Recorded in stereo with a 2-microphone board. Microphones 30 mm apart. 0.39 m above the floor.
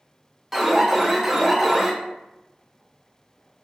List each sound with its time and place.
0.5 s an alarm: 5° right (ahead or behind), 0.8 m